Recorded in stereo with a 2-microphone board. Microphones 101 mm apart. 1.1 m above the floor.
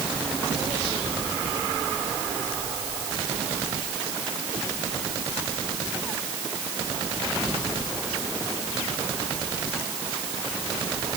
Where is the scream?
I don't hear a scream.